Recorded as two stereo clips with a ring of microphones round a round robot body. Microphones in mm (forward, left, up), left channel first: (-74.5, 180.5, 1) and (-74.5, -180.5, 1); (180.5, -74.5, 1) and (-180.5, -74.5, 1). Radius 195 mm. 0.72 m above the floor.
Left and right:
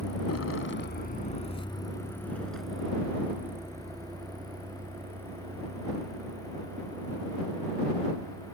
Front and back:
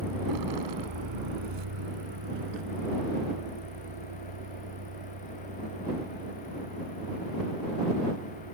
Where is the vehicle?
130° left; by 8.6 s 155° right.